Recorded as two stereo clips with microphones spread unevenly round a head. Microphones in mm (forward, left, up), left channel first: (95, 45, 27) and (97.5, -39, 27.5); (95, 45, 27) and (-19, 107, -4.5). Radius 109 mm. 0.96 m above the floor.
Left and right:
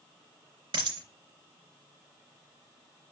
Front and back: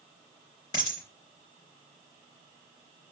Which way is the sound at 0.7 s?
95° right.